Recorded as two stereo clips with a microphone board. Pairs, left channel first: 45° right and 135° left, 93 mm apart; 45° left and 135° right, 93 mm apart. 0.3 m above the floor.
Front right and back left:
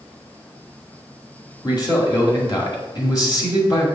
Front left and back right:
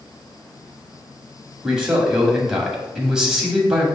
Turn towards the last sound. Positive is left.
turn(degrees=-55)